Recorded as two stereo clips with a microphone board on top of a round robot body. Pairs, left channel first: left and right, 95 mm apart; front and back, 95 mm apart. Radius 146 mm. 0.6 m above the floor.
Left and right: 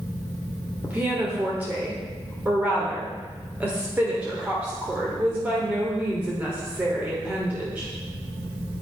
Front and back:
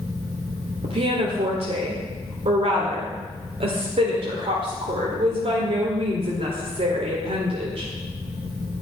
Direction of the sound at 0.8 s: 165° right.